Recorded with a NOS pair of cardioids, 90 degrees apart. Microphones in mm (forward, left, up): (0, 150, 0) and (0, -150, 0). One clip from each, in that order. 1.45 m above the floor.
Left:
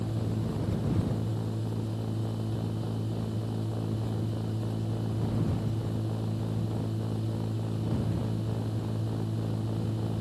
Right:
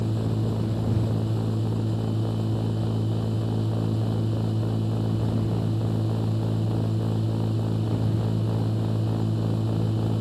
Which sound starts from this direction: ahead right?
A machine running, at 0.0 s.